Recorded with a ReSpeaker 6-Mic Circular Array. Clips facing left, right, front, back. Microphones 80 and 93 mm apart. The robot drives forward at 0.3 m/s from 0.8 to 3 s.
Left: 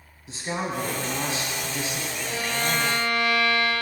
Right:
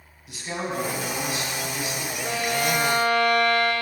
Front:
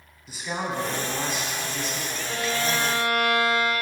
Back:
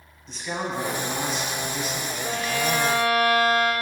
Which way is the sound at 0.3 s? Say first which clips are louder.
Left 1 dB, even; 75° left.